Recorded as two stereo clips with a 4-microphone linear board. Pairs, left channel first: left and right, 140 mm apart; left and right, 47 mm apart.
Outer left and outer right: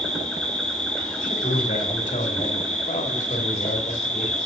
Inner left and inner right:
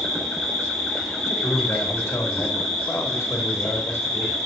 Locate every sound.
0.0 s an insect: 5° left (ahead or behind), 2.5 m
1.2 s a man speaking: 70° left (ahead or behind), 2.5 m